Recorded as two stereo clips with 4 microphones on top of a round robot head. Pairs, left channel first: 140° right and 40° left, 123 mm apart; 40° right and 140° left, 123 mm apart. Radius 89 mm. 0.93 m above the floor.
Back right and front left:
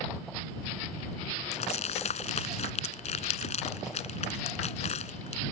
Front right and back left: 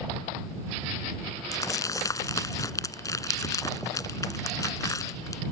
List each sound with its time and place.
1.5 s crumpling: 105° right